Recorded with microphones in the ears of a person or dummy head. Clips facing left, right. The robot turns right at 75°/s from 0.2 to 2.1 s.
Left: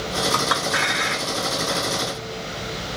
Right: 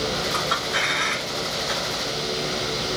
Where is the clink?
80° left, 1.6 m; by 1.8 s 10° right (ahead or behind), 1.6 m.